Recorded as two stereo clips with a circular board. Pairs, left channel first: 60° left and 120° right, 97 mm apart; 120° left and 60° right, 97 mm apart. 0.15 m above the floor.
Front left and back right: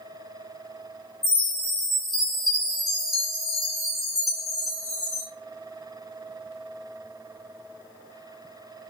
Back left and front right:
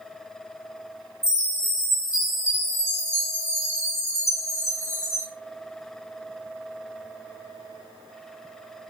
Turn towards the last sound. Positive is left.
turn(degrees=155)